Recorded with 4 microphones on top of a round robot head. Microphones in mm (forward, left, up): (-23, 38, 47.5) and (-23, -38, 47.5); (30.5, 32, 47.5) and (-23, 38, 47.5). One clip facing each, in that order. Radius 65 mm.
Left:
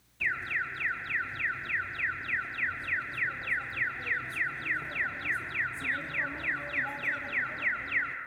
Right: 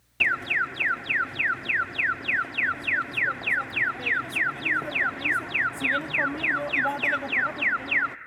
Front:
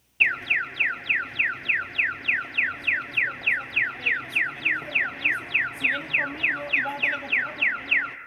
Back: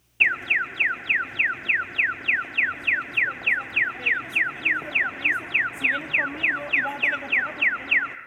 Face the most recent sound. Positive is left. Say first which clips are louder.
# right 7 dB, back 1 dB
turn(degrees=-110)